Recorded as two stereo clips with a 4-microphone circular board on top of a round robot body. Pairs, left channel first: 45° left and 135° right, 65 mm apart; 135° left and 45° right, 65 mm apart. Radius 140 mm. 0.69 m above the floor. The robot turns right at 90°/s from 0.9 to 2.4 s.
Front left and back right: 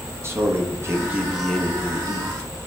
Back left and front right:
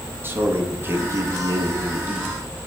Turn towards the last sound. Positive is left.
turn(degrees=40)